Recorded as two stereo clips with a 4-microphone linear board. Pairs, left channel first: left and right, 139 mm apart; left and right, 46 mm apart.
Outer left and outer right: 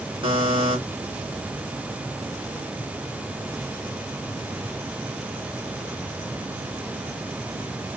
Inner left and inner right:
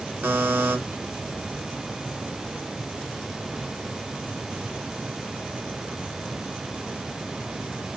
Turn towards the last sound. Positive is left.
turn(degrees=-40)  # may be behind; listen again after turning